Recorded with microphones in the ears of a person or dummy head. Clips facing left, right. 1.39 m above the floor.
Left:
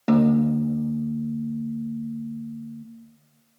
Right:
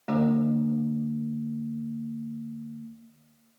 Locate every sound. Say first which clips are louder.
0.1 s a piano: left 5 dB; 60° left (ahead or behind), 0.8 m